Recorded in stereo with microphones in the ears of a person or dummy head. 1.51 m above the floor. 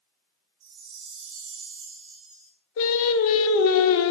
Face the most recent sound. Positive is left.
turn(degrees=70)  # may be behind; listen again after turning